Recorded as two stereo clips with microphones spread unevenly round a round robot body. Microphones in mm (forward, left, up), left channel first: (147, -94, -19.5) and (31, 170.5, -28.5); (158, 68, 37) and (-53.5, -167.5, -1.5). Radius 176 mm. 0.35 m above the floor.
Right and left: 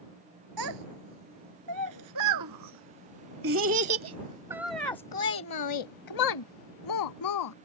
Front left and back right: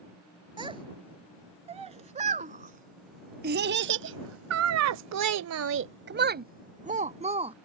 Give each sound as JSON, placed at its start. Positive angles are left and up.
{"t": 0.6, "sound": "a child speaking", "azimuth_deg": 150}